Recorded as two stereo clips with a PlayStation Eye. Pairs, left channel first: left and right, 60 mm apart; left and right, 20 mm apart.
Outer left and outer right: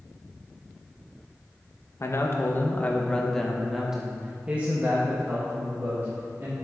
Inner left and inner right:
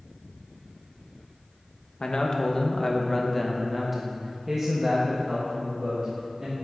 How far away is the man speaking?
About 1.1 m.